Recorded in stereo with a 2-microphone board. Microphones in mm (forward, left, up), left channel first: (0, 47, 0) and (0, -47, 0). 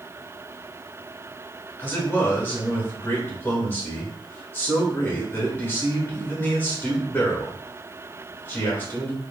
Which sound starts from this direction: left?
A man speaking, at 1.8 s.